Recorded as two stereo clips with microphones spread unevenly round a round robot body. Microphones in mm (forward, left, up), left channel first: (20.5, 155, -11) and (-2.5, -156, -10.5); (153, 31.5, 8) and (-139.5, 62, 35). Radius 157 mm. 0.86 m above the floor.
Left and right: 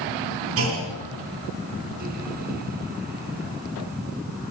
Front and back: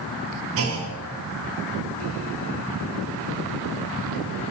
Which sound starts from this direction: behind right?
A clunk, at 0.6 s.